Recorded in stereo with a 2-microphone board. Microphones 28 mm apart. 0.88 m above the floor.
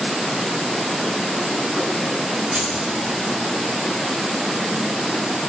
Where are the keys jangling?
25° right (ahead or behind), 4 m.